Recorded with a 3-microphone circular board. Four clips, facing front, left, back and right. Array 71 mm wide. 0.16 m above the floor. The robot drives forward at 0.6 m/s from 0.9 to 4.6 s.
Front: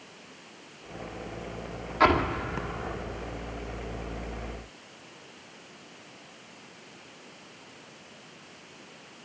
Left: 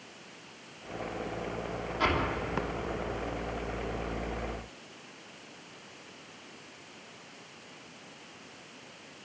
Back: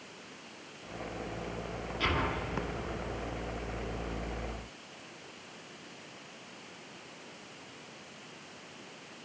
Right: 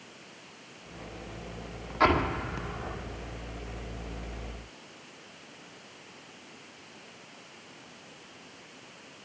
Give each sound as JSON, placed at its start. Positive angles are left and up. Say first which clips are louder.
{"t": 2.0, "sound": "an explosion", "louder": "right 5 dB, front 10 dB", "azimuth_deg": -35, "distance_m": 2.5}